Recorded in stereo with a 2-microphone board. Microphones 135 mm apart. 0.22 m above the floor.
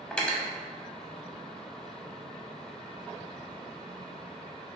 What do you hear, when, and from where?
0.1 s cutlery clinking: 5° left (ahead or behind), 0.5 m